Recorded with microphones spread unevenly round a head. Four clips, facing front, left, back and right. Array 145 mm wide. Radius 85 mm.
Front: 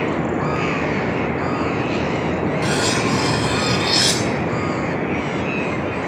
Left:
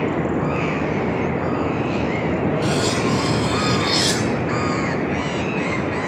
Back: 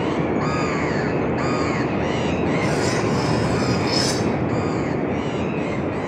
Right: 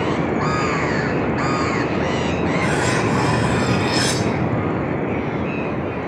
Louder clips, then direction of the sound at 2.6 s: Right 1 dB, front 1 dB; 45° right.